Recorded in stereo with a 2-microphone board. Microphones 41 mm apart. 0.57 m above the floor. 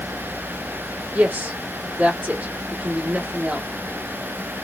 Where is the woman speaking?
45° right (ahead or behind), 1.4 m.